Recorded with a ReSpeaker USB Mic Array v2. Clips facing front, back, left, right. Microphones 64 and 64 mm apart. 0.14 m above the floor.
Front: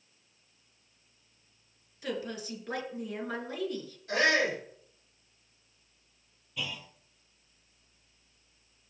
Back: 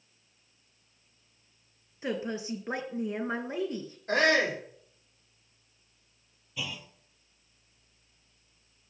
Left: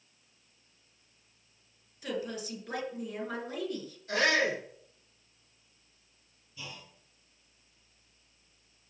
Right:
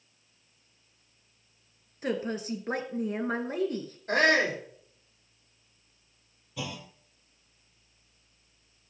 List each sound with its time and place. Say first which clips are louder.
2.0 s a woman speaking: back 3 dB, right 5 dB; 125° right, 2 m
4.1 s a shout: back 2 dB, right 4 dB; 135° right, 6.5 m
6.6 s a clunk: even, right 9 dB; 95° right, 1.2 m